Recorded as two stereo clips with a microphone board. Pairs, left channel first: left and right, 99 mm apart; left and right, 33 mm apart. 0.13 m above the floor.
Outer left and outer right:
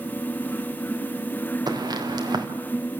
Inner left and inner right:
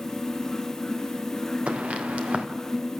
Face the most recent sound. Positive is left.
turn(degrees=-45)  # may be behind; listen again after turning